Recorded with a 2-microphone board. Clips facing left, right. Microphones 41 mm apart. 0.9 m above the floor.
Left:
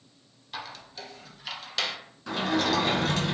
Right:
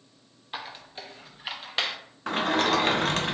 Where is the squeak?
25° right (ahead or behind), 0.6 m.